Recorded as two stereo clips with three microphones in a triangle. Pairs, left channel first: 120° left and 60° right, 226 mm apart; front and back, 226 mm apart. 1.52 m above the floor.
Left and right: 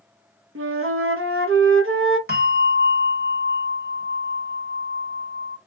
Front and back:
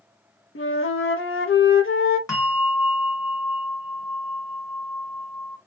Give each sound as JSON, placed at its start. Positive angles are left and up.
{"t": 0.6, "sound": "a flute", "azimuth_deg": -30, "distance_m": 0.8}
{"t": 2.3, "sound": "a bell", "azimuth_deg": -70, "distance_m": 1.5}